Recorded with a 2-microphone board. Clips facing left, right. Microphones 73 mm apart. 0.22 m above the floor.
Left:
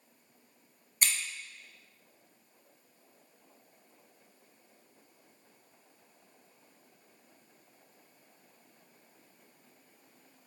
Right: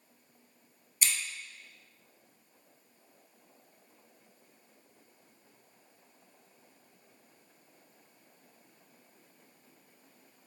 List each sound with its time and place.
1.0 s scissors: 45° left (ahead or behind), 1.0 m